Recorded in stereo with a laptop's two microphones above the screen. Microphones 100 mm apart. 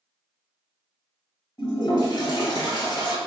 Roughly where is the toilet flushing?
Left.